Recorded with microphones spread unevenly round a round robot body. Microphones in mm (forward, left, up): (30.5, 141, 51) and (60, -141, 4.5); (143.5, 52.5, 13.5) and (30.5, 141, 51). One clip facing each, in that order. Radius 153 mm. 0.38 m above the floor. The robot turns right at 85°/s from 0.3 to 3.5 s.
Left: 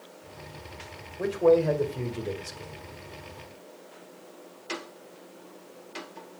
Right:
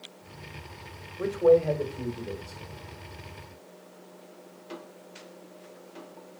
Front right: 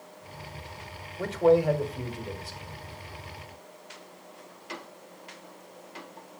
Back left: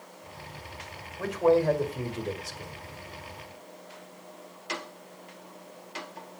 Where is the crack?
I don't hear a crack.